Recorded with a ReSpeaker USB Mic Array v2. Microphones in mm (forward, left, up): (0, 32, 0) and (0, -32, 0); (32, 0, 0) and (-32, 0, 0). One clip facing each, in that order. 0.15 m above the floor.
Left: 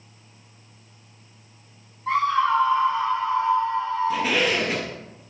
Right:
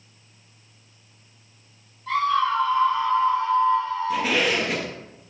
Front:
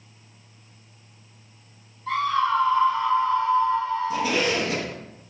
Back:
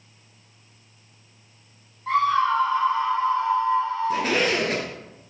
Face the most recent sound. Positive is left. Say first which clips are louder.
# even, back 3 dB
turn(degrees=180)